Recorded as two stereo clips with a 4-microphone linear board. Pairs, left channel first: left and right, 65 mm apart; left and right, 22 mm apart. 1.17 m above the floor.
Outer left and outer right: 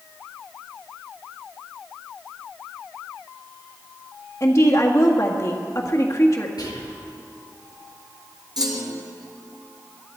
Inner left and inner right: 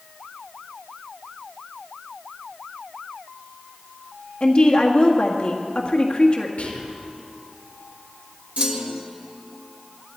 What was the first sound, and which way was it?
A woman speaking, 45° left (ahead or behind).